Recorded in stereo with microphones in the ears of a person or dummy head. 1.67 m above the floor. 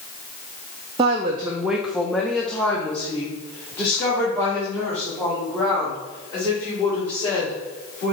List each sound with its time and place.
1.0 s a woman speaking: 15° right (ahead or behind), 0.5 m; by 8.2 s 15° left (ahead or behind), 4 m